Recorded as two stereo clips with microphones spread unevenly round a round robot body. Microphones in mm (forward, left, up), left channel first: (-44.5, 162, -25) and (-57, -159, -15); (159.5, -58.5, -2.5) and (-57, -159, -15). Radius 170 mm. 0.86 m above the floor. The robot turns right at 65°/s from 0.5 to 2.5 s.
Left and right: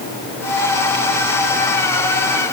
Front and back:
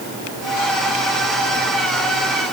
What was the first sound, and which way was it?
Only background noise.